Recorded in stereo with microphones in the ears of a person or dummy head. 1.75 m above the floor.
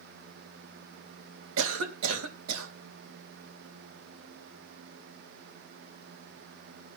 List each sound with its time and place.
1.6 s a cough: 85° right, 3 m